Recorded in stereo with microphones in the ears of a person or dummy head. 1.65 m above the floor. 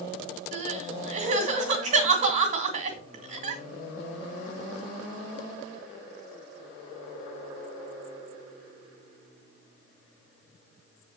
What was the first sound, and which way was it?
Crying, 40° right (ahead or behind).